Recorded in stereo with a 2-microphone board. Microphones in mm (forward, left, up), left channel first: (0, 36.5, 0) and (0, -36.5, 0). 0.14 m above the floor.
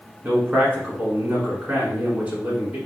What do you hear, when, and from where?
0.2 s a man speaking: 20° right (ahead or behind), 1.2 m